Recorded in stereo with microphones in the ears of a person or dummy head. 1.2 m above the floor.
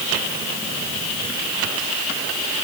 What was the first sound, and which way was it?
Only background noise.